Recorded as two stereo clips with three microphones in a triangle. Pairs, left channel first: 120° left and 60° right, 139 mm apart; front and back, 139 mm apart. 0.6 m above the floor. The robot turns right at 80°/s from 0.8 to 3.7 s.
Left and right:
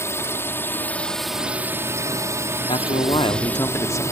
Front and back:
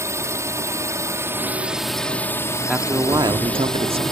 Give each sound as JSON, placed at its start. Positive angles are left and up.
{"t": 0.0, "sound": "a drone", "azimuth_deg": 155}
{"t": 2.7, "sound": "a man speaking", "azimuth_deg": 95}